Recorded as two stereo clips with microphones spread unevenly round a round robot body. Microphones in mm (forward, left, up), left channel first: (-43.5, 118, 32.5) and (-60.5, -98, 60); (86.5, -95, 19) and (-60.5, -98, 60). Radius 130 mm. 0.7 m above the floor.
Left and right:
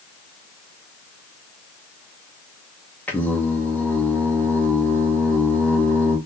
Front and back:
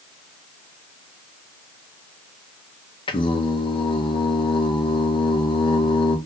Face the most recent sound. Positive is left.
turn(degrees=10)